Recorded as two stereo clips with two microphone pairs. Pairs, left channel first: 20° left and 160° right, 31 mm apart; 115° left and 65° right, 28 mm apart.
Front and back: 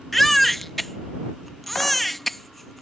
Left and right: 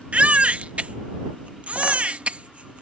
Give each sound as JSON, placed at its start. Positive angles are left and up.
{"t": 0.1, "sound": "a baby crying", "azimuth_deg": -55}